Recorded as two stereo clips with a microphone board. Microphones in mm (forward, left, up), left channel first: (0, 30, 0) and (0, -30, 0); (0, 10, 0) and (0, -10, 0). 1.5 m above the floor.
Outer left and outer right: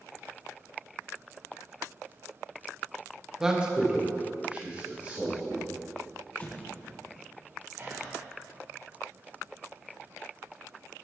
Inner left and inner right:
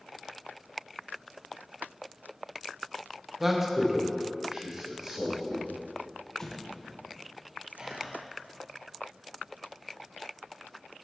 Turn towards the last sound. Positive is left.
turn(degrees=-50)  # may be behind; listen again after turning